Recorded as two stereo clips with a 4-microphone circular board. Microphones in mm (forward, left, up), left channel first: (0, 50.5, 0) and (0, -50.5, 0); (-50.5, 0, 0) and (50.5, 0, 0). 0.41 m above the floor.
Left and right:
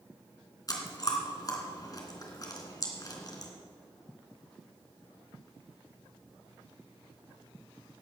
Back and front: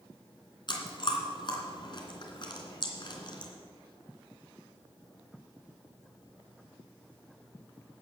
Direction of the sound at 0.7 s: 140° left.